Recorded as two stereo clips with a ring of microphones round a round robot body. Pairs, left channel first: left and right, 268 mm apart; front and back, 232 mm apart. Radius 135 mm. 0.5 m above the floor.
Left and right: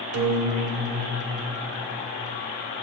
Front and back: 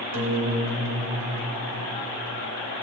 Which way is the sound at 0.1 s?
130° right.